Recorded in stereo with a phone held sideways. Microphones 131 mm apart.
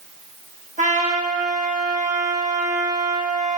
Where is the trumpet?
70° right (ahead or behind), 2.0 m.